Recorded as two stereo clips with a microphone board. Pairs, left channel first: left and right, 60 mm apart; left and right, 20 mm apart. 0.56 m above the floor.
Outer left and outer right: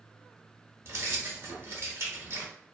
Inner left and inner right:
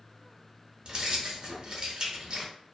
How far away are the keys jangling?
About 0.9 m.